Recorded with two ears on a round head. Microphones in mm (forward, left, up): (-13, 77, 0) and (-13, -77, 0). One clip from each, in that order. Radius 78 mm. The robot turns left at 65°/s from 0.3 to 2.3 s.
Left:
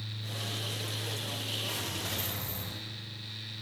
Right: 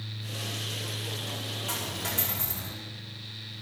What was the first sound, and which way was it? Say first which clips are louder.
A dropped coin: right 2 dB; 65° right.